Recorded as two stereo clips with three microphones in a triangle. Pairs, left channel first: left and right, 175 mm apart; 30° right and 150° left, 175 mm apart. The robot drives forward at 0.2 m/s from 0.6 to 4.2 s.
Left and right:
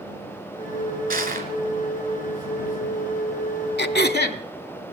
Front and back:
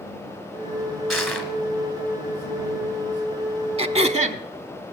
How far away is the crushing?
About 1.9 m.